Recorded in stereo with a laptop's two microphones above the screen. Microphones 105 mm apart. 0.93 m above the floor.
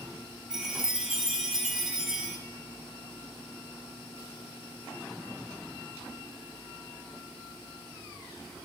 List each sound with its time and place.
0.5 s a chime: 5° right (ahead or behind), 0.8 m